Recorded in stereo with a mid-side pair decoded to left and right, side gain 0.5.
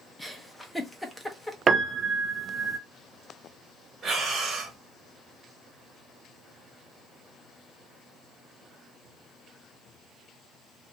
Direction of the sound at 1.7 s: 40° right.